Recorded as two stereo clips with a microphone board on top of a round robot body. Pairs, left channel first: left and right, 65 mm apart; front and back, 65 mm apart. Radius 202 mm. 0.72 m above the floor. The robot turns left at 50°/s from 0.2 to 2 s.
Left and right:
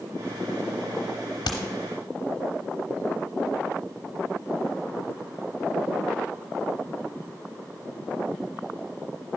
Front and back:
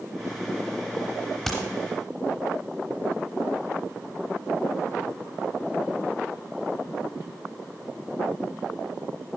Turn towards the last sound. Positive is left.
turn(degrees=60)